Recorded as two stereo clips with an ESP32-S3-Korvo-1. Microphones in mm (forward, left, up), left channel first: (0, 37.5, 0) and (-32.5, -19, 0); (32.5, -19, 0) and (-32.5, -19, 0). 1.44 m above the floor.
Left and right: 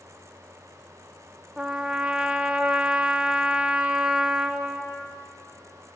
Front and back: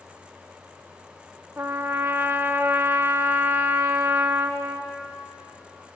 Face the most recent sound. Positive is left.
turn(degrees=180)